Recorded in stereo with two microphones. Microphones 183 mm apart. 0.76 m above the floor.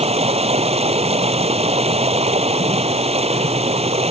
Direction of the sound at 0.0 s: 35° right (ahead or behind).